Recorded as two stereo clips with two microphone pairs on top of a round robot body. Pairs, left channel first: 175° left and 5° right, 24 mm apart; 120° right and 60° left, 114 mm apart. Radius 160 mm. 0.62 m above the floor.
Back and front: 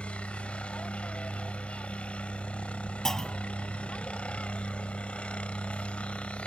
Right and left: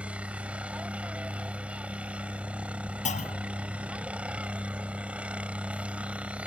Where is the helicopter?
140° left.